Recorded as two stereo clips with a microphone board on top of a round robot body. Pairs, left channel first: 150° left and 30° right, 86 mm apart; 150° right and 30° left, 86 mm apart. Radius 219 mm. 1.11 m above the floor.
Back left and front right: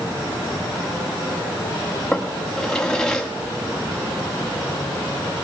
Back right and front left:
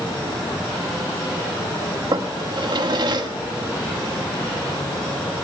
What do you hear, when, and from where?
2.1 s a drawer: 70° left, 1.5 m